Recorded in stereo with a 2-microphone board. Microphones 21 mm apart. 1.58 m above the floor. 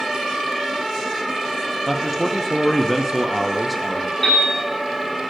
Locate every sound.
1.9 s a man speaking: 5° right (ahead or behind), 0.6 m
4.2 s a piano: 20° left (ahead or behind), 4.5 m